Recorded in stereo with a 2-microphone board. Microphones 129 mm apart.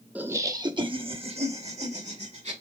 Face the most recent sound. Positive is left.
turn(degrees=-55)  # may be behind; listen again after turning